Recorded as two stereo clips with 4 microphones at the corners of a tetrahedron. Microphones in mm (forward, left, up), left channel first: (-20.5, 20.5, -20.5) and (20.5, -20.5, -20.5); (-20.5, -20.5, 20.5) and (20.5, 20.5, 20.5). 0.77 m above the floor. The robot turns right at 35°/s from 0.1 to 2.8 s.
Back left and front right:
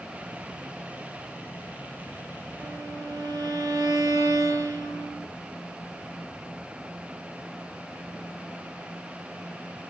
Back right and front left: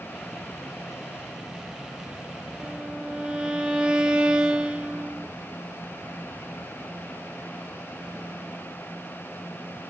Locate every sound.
2.6 s a violin: 35° right, 0.6 m; by 5.3 s 30° right, 0.6 m